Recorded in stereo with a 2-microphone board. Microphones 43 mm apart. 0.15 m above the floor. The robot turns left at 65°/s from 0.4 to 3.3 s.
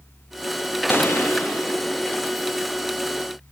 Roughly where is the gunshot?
Behind left.